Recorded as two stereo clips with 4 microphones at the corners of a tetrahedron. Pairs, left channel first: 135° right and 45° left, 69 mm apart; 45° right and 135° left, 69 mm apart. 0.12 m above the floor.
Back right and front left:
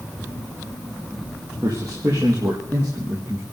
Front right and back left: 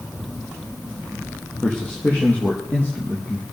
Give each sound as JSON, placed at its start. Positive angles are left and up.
{"t": 1.6, "sound": "a man speaking", "azimuth_deg": 25, "distance_m": 4.0}